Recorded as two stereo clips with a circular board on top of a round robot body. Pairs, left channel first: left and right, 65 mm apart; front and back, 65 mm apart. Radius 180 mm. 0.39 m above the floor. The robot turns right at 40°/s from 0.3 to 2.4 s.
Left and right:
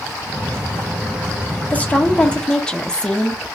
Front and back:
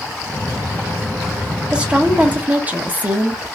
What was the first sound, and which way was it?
A woman speaking, 120° left.